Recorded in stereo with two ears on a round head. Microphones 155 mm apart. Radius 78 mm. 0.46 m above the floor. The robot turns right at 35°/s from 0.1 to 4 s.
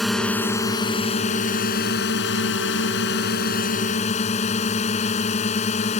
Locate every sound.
0.0 s a drone: straight ahead; by 6.0 s 140° left